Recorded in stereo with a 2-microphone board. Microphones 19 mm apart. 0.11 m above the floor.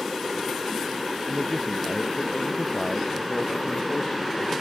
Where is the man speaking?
35° left (ahead or behind); by 4.5 s 30° left (ahead or behind).